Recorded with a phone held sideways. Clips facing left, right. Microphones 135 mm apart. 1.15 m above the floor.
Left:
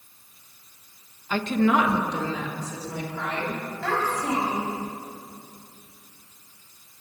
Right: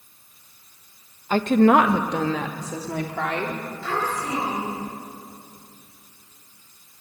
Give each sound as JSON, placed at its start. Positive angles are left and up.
{"t": 1.3, "sound": "a woman speaking", "side_deg": -40, "distance_m": 1.0}
{"t": 3.8, "sound": "a child speaking", "side_deg": 70, "distance_m": 6.5}